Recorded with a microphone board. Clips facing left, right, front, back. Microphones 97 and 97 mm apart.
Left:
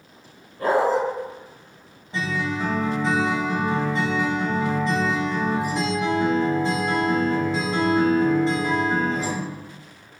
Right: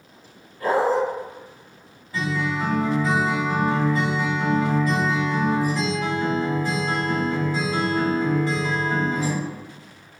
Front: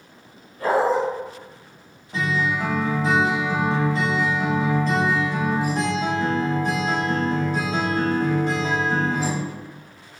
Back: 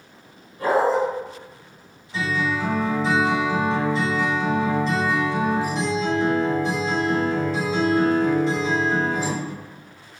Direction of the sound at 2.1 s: 30° left.